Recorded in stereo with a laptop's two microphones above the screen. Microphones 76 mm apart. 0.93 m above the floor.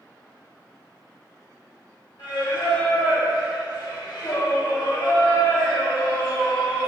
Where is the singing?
65° left (ahead or behind), 1.2 m.